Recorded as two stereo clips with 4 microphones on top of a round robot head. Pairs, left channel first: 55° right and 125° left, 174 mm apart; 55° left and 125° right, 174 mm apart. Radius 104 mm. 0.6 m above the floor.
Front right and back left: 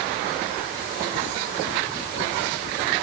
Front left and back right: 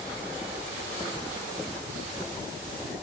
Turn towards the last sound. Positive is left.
No sound to turn to.